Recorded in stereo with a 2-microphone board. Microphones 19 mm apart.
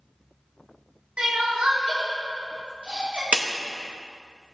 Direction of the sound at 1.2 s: 70° right (ahead or behind).